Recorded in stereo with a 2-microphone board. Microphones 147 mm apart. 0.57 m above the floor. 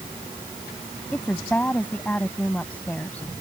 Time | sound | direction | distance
1.1 | a woman speaking | 10° left (ahead or behind) | ?